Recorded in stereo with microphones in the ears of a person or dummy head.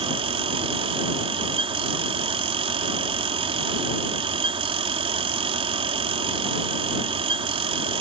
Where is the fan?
25° right (ahead or behind).